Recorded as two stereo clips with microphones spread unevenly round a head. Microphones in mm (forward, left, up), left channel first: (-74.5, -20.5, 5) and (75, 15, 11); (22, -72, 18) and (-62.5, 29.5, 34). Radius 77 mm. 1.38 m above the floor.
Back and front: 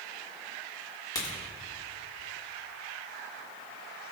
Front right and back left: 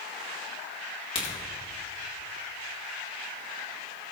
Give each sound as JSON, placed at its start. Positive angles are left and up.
{"t": 1.1, "sound": "a crack", "azimuth_deg": -100, "distance_m": 3.5}